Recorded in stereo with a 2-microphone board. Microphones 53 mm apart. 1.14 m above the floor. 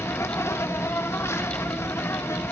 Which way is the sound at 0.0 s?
60° left (ahead or behind).